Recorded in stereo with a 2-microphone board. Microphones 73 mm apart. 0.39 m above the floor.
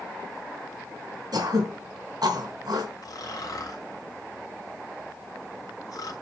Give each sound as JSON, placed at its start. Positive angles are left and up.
{"t": 1.3, "sound": "throat clearing", "side_deg": -70, "distance_m": 3.5}
{"t": 3.0, "sound": "snoring", "side_deg": 55, "distance_m": 2.5}